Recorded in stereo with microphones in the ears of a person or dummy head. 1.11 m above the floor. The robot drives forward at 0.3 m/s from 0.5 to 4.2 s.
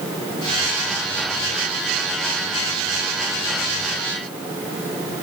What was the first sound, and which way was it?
Only background noise.